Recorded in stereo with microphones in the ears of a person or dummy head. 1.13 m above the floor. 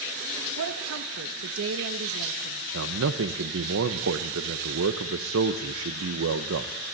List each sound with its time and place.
0.6 s a woman speaking: 75° right (ahead or behind), 1.5 m
2.7 s a man speaking: 65° right (ahead or behind), 1.1 m